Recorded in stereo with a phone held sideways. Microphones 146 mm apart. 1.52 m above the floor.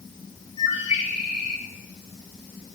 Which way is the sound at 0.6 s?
55° left (ahead or behind).